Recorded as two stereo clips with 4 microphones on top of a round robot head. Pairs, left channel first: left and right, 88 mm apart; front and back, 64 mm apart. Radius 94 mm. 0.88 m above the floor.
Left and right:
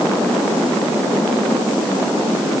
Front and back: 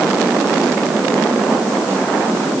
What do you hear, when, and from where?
Only background noise.